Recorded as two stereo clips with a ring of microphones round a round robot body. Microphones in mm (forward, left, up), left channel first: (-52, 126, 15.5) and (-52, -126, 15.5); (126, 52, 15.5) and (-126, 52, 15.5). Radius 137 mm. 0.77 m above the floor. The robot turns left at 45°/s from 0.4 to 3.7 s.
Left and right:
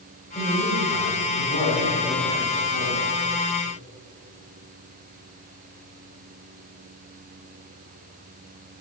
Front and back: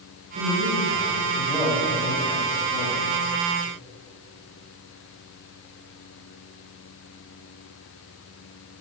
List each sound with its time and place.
0.3 s a man speaking: 155° left, 4 m; by 3.0 s 40° left, 4 m